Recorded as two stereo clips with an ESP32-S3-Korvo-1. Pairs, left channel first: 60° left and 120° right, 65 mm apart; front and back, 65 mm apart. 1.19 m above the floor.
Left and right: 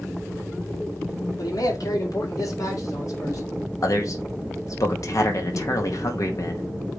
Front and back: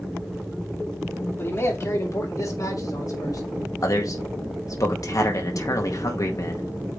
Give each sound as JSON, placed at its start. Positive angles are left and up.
{"t": 1.4, "sound": "a man speaking", "azimuth_deg": 50, "distance_m": 2.5}
{"t": 3.8, "sound": "a man speaking", "azimuth_deg": 30, "distance_m": 1.9}